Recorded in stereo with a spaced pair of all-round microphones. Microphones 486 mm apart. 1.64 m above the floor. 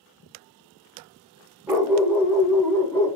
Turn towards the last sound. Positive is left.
turn(degrees=5)  # may be behind; listen again after turning